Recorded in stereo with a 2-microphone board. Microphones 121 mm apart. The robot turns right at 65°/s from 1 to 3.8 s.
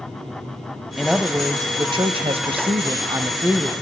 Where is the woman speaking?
Straight behind, 1.2 m; by 3.7 s 5° right, 1.2 m.